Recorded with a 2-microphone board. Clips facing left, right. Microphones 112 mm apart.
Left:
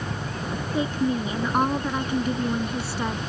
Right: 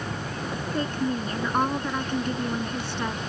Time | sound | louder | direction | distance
0.7 | a woman speaking | left 3 dB | 5° left (ahead or behind) | ?